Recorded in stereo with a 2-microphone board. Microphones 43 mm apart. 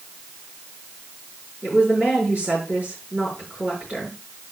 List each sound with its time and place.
1.6 s a woman speaking: 40° right (ahead or behind), 4 m